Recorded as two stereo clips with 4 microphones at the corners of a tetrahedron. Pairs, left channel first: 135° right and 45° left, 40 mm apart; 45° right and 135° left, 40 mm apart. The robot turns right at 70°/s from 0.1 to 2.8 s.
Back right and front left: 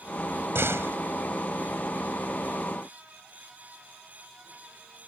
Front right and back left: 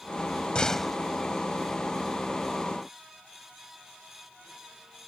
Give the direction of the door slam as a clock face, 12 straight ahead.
11 o'clock.